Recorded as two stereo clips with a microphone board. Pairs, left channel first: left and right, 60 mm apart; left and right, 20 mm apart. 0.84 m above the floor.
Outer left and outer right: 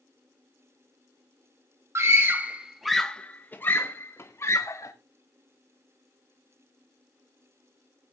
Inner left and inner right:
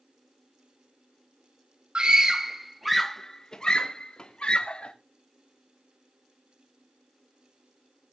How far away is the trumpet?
I don't hear a trumpet.